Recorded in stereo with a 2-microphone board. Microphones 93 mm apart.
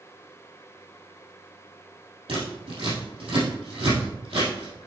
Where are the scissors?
80° right, 3.5 m.